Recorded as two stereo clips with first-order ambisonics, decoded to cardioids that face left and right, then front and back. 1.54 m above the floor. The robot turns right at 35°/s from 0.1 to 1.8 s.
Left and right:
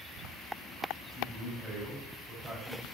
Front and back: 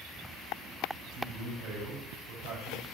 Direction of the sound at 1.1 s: 175° left.